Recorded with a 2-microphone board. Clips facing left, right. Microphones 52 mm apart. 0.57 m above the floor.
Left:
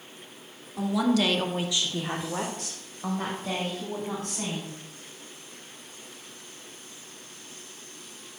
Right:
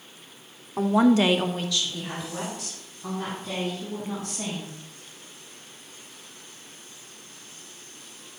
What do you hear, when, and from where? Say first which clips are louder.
0.8 s a woman speaking: right 5 dB; 45° right (ahead or behind), 1.0 m; by 4.8 s 50° left (ahead or behind), 4 m